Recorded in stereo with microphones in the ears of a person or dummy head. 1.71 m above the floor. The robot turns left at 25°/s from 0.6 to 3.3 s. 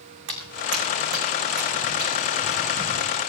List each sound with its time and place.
0.3 s footsteps: 65° right (ahead or behind), 7 m; by 3.2 s 10° left (ahead or behind), 6 m